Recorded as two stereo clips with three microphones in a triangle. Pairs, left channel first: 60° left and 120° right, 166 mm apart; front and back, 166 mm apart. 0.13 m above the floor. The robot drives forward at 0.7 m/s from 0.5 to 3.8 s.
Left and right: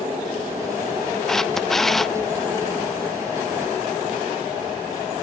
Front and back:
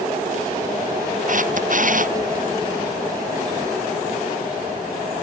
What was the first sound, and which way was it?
A camera shutter, 145° left.